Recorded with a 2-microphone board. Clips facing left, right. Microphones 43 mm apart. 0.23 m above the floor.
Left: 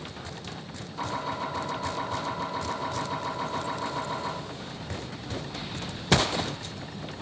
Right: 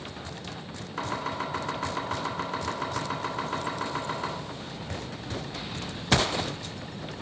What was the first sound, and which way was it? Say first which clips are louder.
Chopping: even; 65° right (ahead or behind).